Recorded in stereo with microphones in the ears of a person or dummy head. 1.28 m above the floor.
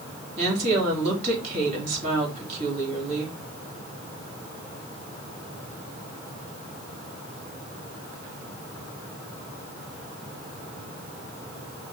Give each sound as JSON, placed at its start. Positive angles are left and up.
{"t": 0.4, "sound": "a woman speaking", "side_deg": -45, "distance_m": 3.0}